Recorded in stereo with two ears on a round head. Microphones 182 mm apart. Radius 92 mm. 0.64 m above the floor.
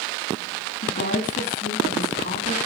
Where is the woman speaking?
40° left (ahead or behind), 6.5 m.